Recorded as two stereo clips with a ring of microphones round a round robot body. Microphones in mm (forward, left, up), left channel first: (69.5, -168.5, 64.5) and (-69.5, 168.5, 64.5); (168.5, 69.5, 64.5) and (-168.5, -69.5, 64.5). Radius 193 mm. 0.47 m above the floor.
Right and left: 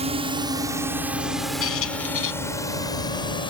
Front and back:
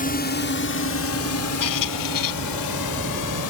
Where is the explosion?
I don't hear an explosion.